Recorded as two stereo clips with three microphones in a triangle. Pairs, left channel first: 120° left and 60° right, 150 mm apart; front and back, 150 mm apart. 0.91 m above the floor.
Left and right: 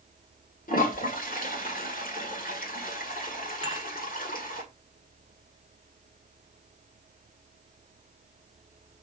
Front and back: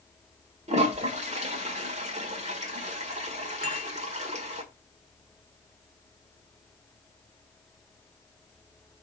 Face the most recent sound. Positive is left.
turn(degrees=160)